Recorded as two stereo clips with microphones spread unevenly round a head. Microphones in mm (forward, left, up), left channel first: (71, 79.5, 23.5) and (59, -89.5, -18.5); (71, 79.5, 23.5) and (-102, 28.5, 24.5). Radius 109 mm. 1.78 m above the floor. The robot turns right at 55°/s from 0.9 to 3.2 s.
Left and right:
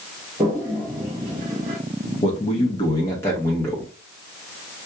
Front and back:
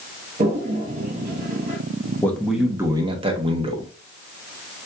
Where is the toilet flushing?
175° right, 1.5 m; by 1.8 s 130° right, 1.5 m.